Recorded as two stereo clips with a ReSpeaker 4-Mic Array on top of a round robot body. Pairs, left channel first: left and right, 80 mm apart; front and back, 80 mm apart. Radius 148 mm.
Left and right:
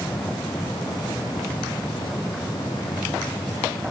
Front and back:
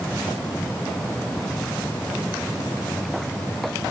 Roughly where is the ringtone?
I don't hear a ringtone.